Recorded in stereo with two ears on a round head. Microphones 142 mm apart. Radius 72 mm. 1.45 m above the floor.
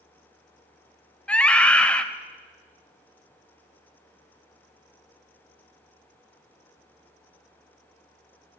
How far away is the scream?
About 0.6 m.